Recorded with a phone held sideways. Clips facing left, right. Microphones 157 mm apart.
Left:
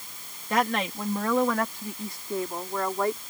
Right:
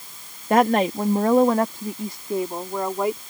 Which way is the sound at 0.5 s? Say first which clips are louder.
Right 9 dB; 55° right (ahead or behind).